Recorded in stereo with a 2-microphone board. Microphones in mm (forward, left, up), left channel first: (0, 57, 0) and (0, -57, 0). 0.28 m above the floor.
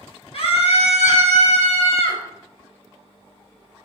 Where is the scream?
60° left (ahead or behind), 4 m; by 2.2 s 65° left (ahead or behind), 3.5 m.